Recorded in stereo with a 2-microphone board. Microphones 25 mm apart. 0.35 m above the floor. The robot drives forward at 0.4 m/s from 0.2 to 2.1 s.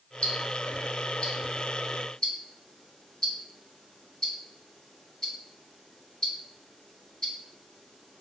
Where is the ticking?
45° left (ahead or behind), 0.7 m; by 8.2 s 30° left (ahead or behind), 1.0 m.